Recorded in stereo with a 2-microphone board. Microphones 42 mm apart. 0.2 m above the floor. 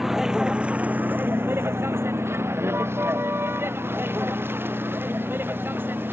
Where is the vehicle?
5° right (ahead or behind); by 6.1 s 55° right (ahead or behind).